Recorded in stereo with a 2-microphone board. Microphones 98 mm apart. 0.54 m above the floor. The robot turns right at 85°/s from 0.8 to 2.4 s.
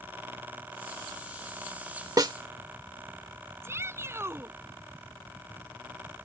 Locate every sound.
2.2 s a snare drum: 45° right (ahead or behind); by 2.3 s 55° right (ahead or behind)
3.6 s a shout: 30° right (ahead or behind)